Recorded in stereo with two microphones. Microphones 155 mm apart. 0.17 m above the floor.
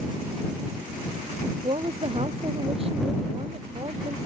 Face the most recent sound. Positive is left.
turn(degrees=-40)  # may be behind; listen again after turning